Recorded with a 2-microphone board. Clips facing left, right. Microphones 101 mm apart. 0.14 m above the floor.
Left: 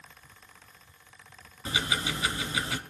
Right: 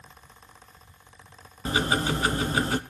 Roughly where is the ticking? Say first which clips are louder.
Right 7 dB; right.